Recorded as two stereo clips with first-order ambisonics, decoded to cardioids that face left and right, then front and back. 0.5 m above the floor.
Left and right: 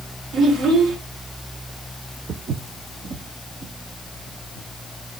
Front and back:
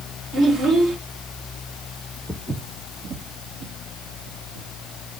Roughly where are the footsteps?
Right.